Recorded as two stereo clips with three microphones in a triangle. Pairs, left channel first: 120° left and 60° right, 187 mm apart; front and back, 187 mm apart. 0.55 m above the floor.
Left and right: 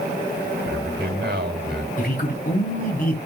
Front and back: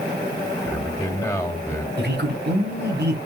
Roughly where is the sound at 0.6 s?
Right.